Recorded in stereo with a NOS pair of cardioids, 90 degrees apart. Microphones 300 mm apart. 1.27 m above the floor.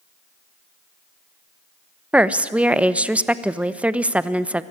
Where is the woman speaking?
5° right, 0.9 m.